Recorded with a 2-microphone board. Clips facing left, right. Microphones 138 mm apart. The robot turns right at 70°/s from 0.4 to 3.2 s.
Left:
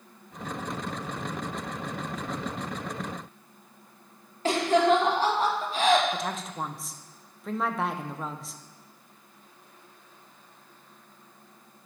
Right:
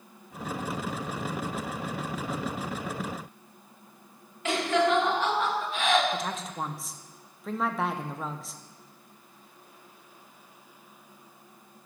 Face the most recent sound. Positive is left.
turn(degrees=0)  # may be behind; listen again after turning